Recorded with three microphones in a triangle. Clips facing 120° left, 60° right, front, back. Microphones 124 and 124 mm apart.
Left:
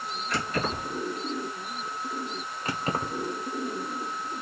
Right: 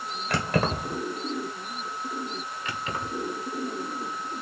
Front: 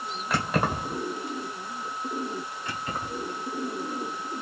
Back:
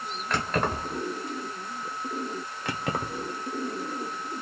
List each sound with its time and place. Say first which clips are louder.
0.3 s keys jangling: right 4 dB, front 1 dB; 85° right, 1.6 m
2.6 s keys jangling: left 4 dB, back 6 dB; 170° left, 1.0 m